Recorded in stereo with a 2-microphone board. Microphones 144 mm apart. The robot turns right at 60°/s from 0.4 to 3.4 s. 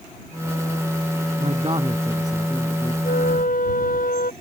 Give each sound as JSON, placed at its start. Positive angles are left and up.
{"t": 1.4, "sound": "a man speaking", "azimuth_deg": -60}
{"t": 3.0, "sound": "a flute", "side_deg": 85}